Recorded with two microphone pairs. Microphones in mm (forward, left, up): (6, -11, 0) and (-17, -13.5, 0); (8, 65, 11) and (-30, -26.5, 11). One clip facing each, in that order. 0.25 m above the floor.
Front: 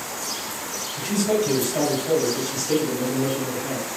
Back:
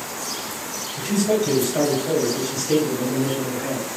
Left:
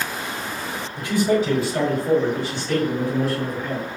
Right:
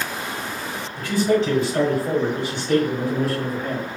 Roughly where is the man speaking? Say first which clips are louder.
Back 2 dB, even; ahead left.